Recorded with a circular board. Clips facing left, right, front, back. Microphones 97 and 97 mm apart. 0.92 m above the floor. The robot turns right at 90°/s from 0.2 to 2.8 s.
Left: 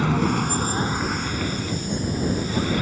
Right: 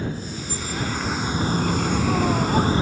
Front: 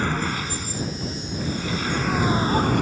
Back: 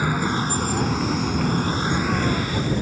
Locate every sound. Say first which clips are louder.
0.0 s a vehicle: left 9 dB, back 3 dB; 100° left; by 2.8 s 25° right